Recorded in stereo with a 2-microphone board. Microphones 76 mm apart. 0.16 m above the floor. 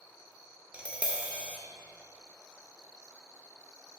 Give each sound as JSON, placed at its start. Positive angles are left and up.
{"t": 0.7, "sound": "tapping", "side_deg": -15, "distance_m": 1.0}